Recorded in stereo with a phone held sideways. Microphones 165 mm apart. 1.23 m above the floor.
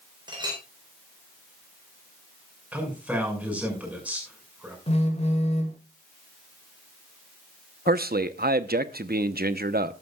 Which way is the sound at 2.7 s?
10° right (ahead or behind).